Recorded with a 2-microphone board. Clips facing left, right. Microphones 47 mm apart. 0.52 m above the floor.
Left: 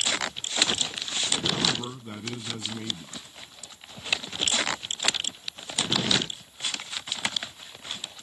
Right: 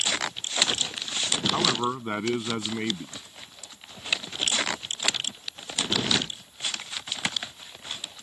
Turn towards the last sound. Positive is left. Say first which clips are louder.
# right 4 dB
turn(degrees=-50)  # may be behind; listen again after turning